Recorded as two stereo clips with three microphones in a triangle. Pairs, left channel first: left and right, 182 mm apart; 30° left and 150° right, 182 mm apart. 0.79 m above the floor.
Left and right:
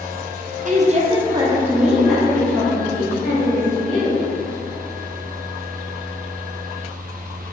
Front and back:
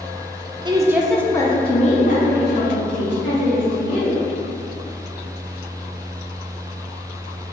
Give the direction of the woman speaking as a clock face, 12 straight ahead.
3 o'clock.